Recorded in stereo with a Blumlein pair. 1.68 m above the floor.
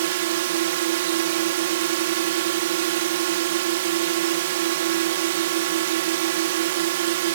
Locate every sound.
0.0 s a drone: 55° right